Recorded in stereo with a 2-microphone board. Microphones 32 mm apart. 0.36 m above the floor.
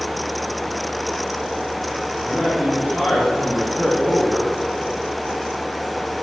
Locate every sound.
2.2 s a man speaking: 40° left (ahead or behind), 7 m; by 4.5 s 60° left (ahead or behind), 7 m